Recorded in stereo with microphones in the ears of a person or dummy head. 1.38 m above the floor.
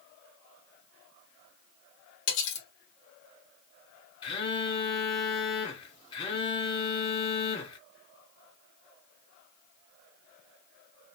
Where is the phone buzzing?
30° left (ahead or behind), 0.8 m.